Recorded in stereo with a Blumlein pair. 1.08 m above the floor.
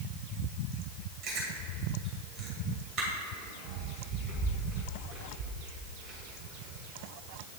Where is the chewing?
30° right, 2.5 m.